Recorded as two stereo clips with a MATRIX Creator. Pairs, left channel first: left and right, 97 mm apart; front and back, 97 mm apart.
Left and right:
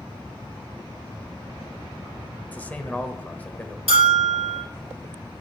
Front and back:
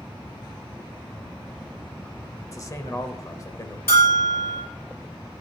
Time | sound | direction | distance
2.5 | a man speaking | 25° left | 1.1 m
3.9 | a bell | 65° left | 4 m